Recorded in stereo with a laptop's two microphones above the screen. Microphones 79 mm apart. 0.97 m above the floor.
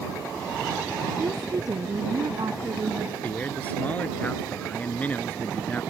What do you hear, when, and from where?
1.2 s a woman speaking: 55° right (ahead or behind)
3.2 s a man speaking: 20° left (ahead or behind)